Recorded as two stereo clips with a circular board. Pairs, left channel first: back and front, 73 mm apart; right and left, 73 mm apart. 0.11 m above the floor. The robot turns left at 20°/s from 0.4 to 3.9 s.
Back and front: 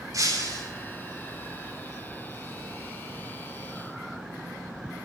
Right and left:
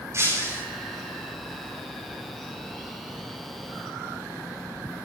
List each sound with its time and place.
0.1 s breaking glass: 35° left, 8.5 m